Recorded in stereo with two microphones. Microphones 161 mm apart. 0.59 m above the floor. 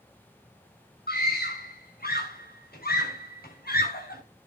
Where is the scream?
75° left (ahead or behind), 7 m.